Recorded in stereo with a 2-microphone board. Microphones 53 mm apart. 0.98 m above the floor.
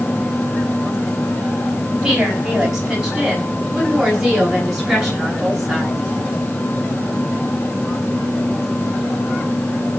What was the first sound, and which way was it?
A woman speaking, 10° right (ahead or behind).